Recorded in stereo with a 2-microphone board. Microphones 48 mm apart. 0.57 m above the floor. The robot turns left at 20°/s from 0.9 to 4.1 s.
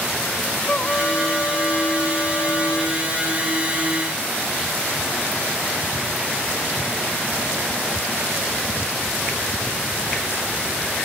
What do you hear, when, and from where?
0.7 s a trumpet: 150° left; by 3.0 s 110° left